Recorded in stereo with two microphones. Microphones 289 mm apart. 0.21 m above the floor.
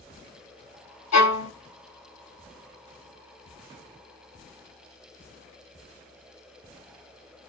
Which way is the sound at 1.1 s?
65° left (ahead or behind).